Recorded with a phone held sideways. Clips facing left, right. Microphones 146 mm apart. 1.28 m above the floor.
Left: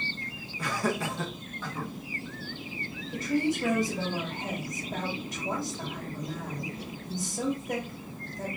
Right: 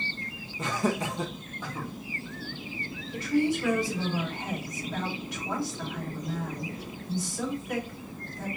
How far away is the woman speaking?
About 1.7 m.